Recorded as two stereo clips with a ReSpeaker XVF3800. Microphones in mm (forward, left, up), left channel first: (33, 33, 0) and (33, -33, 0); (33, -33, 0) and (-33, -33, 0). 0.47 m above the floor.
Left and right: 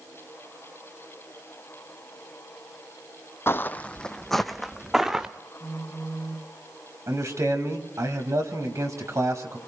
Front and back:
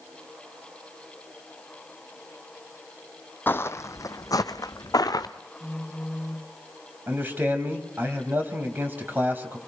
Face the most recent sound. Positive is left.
turn(degrees=-125)